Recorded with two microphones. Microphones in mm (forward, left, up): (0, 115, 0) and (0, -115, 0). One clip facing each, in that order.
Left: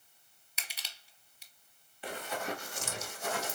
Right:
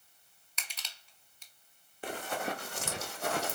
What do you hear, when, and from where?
0.6 s crushing: 10° left (ahead or behind), 1.1 m
2.0 s running footsteps: 50° right (ahead or behind), 1.6 m; by 3.5 s 65° right (ahead or behind), 1.1 m